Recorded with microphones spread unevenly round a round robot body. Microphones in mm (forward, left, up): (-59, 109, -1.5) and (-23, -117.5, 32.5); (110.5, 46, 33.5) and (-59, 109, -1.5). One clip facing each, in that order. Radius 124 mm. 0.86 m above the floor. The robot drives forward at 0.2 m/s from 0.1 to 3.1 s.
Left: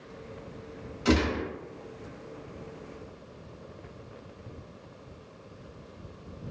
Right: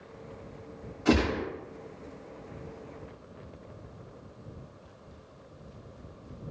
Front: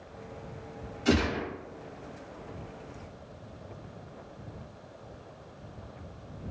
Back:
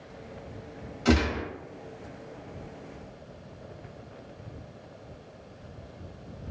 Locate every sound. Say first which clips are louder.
1.1 s a gunshot: even, back 2 dB; 140° left, 1.2 m; by 1.4 s 145° left, 1.3 m